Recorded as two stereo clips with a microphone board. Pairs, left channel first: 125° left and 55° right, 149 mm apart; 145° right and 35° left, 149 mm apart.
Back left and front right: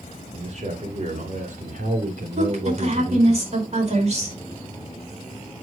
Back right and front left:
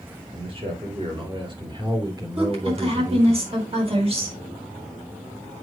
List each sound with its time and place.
0.3 s a man speaking: 15° right, 3.5 m; by 3.4 s 40° right, 2.5 m
2.4 s a woman speaking: 15° right, 4.5 m